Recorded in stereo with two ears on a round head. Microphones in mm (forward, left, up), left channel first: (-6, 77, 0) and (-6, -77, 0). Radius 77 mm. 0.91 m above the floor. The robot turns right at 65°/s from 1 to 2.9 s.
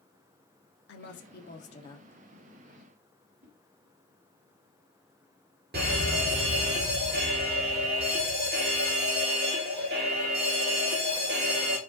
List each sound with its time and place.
0.9 s a woman speaking: 95° left, 1.9 m; by 2.2 s 170° left, 1.9 m
3.4 s a whoosh: 50° right (ahead or behind), 3 m
5.7 s a fire alarm: 55° right (ahead or behind), 4.5 m